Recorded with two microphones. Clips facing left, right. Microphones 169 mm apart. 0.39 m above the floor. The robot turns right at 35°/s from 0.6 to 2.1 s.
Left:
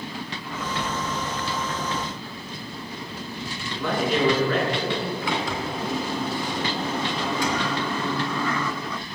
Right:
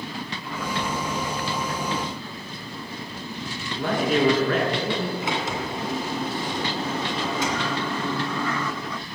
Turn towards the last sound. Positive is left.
turn(degrees=-20)  # may be behind; listen again after turning